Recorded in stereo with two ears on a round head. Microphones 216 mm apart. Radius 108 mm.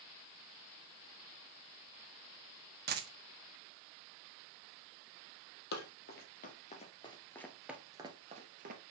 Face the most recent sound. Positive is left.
turn(degrees=-40)  # may be behind; listen again after turning